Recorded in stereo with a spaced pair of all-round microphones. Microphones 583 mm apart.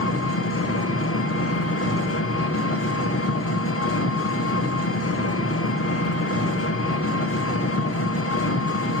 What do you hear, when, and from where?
0.0 s an engine running: 25° left (ahead or behind), 1.0 m